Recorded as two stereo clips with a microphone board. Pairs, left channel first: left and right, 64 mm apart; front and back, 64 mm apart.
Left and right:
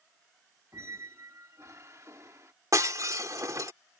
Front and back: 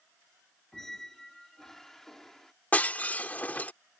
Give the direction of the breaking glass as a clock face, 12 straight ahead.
2 o'clock.